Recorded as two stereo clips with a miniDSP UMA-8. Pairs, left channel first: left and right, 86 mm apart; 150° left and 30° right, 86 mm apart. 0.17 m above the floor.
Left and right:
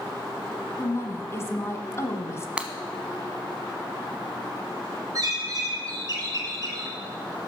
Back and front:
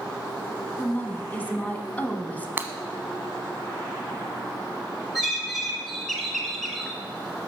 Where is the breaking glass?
35° right, 0.9 m.